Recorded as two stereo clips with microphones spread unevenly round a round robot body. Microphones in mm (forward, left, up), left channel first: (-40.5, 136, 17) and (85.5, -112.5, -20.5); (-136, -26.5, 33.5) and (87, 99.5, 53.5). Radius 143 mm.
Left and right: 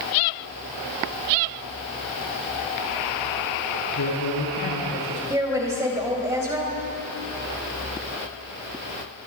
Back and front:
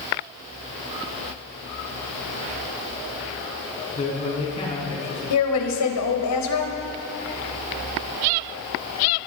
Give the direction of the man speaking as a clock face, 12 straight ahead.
7 o'clock.